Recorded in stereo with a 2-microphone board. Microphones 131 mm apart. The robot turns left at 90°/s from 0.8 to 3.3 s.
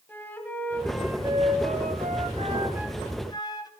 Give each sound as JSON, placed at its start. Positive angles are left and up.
{"t": 0.1, "sound": "a flute", "azimuth_deg": 15, "distance_m": 1.2}